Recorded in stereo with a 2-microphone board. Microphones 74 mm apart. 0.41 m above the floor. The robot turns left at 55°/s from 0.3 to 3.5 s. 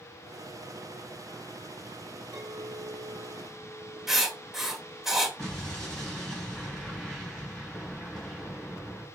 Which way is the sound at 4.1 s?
5° right (ahead or behind).